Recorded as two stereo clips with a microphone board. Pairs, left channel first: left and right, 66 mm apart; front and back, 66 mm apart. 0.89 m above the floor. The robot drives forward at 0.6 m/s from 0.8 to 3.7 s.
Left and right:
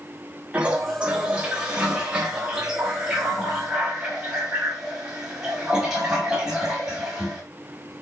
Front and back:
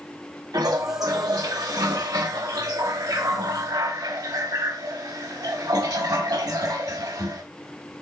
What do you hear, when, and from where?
0.5 s a toilet flushing: 160° right, 3 m; by 7.4 s 170° right, 5 m